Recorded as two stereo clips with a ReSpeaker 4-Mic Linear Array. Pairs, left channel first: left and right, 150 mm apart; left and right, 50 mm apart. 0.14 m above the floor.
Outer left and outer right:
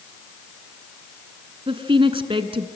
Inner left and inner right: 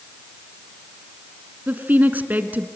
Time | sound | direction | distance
1.7 | a woman speaking | 35° right (ahead or behind) | 1.3 m